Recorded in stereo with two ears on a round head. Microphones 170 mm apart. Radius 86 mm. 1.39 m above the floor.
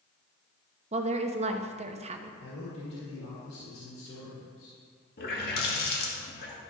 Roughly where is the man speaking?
Left.